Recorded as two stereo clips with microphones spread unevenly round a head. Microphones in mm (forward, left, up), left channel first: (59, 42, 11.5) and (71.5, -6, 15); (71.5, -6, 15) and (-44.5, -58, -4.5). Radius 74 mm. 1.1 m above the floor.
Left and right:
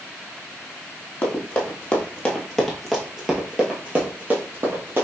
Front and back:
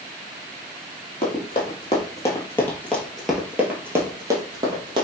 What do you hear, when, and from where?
1.2 s running footsteps: 50° left, 1.6 m; by 5.1 s 105° right, 1.5 m